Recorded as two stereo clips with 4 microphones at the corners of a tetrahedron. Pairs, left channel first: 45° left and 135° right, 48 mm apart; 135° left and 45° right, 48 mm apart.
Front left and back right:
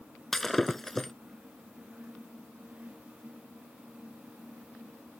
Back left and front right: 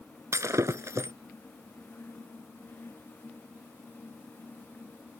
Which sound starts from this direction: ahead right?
Breaking glass, at 0.3 s.